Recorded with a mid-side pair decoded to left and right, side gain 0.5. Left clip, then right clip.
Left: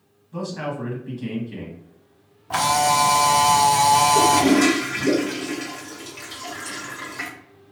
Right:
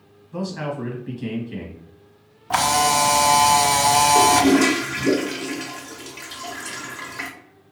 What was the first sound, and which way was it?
A man speaking, 10° right.